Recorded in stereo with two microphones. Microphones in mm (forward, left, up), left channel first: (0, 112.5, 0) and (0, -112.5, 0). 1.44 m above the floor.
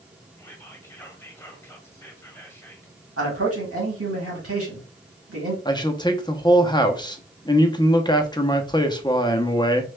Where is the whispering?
10° left (ahead or behind), 1.2 m.